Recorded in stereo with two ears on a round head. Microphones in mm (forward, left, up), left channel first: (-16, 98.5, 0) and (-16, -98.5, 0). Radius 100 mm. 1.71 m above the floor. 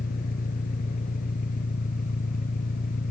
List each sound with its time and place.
0.0 s an engine running: 40° left (ahead or behind)